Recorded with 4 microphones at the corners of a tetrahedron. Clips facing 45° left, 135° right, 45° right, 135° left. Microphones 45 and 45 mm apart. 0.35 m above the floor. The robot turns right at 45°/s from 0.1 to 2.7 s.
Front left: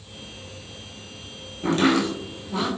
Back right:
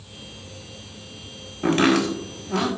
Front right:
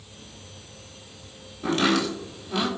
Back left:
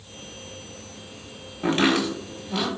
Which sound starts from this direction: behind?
Chopping, at 1.6 s.